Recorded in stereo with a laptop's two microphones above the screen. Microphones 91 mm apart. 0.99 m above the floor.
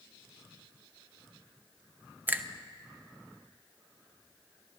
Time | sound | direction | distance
2.3 | a finger snap | 20° right (ahead or behind) | 0.6 m